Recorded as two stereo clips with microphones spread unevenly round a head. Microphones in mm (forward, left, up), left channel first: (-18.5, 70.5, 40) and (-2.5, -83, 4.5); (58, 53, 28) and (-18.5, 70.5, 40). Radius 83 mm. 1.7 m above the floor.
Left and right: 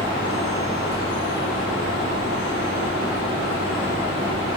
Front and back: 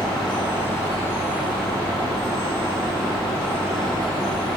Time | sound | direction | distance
0.0 | a fan | 10° right | 8 m